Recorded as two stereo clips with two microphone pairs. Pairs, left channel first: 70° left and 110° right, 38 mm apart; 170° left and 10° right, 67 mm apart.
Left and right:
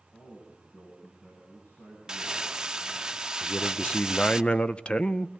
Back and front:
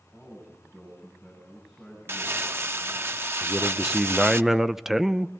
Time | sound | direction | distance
0.1 | a man speaking | 65° left | 9 m
2.1 | crumpling | 45° right | 0.7 m
3.4 | a man speaking | 65° left | 0.6 m